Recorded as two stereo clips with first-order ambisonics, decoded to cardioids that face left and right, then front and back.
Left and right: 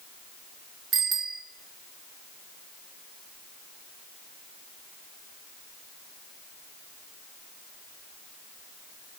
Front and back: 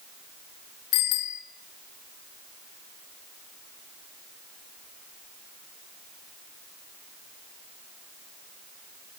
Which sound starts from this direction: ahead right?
A bicycle bell, at 0.9 s.